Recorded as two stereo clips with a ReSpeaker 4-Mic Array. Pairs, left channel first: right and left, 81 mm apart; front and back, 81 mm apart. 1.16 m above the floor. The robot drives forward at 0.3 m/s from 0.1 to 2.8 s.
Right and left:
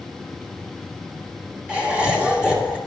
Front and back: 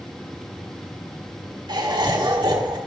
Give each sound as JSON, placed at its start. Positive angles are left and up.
{"t": 1.7, "sound": "laughter", "azimuth_deg": 165, "distance_m": 1.9}